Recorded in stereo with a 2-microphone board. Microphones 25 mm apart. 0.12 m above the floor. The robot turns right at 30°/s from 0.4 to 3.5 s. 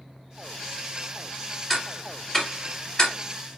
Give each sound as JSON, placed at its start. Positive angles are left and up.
{"t": 1.7, "sound": "ticking", "side_deg": 15, "distance_m": 1.4}